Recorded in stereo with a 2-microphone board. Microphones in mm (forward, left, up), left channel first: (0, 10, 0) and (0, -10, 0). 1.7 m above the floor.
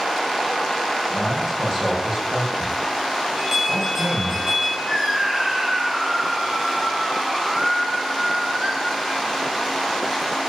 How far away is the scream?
About 9 m.